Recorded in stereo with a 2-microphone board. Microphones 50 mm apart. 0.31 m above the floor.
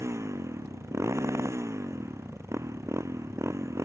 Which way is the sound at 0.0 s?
85° right.